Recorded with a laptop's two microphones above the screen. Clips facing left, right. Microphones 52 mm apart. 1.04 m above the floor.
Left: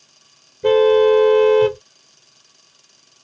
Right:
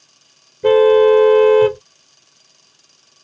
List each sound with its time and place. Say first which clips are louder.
0.6 s a car horn: right 3 dB; 10° right (ahead or behind)